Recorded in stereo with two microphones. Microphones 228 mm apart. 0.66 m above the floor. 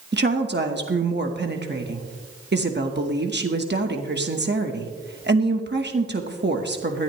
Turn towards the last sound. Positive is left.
turn(degrees=-50)  # may be behind; listen again after turning